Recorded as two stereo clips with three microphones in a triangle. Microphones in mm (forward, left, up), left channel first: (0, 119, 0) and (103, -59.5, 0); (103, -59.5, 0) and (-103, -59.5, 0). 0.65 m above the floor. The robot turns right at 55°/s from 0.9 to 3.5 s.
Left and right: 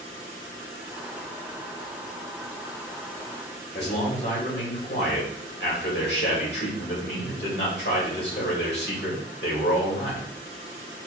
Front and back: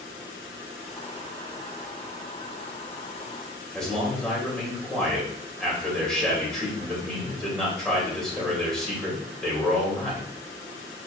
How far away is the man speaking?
About 2 m.